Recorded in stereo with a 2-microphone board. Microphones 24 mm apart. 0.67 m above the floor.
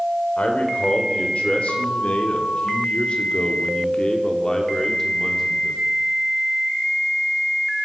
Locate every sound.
0.4 s a man speaking: 60° left (ahead or behind), 3 m; by 5.8 s 15° left (ahead or behind), 2.5 m